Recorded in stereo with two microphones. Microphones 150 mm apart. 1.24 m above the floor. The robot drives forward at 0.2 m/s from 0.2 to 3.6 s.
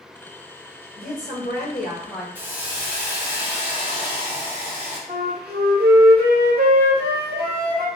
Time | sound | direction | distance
1.0 | a woman speaking | 80° left | 2.0 m
2.4 | a hiss | 10° right (ahead or behind) | 0.7 m
5.1 | a flute | 70° right (ahead or behind) | 0.6 m